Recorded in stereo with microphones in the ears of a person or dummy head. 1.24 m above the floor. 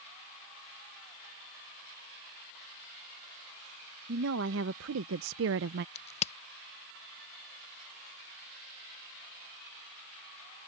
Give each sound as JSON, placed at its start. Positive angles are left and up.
{"t": 4.1, "sound": "a woman speaking", "side_deg": -70}
{"t": 6.0, "sound": "a crack", "side_deg": 30}